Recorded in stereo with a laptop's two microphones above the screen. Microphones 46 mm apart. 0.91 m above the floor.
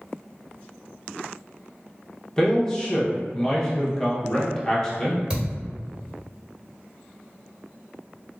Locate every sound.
2.4 s a man speaking: 15° left (ahead or behind), 0.8 m
5.3 s a thud: 25° right (ahead or behind), 1.4 m